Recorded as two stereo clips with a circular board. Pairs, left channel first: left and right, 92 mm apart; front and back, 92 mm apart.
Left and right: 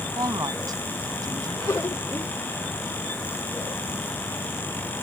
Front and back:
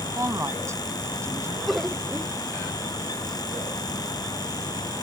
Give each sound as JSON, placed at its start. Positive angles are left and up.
{"t": 0.2, "sound": "a woman speaking", "azimuth_deg": -130}
{"t": 1.7, "sound": "laughter", "azimuth_deg": 95}